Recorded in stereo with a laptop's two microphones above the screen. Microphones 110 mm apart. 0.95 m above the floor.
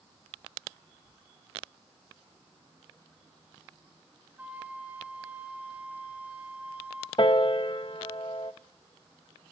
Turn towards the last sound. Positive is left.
turn(degrees=50)  # may be behind; listen again after turning